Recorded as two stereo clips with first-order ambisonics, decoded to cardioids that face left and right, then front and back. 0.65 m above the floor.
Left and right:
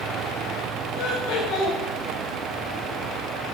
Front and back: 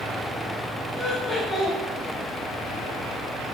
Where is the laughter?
75° left, 3 m.